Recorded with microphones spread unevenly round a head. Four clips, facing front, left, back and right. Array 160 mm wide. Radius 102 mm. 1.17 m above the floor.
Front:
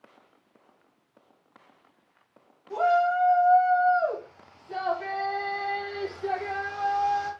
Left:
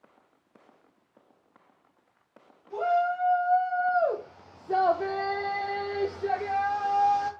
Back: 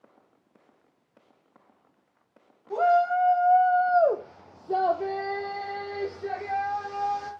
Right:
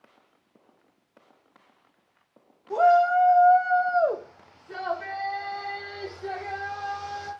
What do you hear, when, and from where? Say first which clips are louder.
2.7 s a shout: right 7 dB, back 1 dB; 120° right, 2 m; by 7.3 s 90° left, 3 m